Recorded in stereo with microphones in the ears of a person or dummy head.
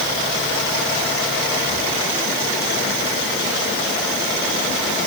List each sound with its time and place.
Only background noise.